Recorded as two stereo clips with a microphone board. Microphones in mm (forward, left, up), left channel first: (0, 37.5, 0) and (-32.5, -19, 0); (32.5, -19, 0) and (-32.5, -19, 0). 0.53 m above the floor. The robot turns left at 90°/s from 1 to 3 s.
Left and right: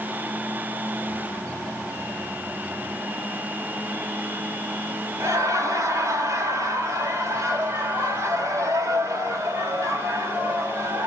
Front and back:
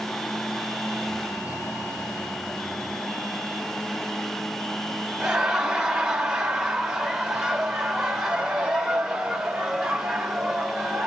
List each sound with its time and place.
5.2 s laughter: 105° right, 1.5 m